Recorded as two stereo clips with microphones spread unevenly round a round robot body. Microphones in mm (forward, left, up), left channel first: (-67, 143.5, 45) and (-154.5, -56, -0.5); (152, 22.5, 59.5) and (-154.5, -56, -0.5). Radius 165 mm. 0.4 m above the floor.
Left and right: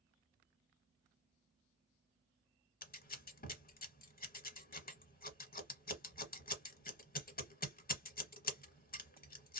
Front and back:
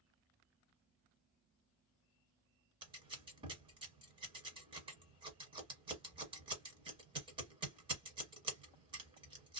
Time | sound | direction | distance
2.8 | scissors | 120° left | 1.0 m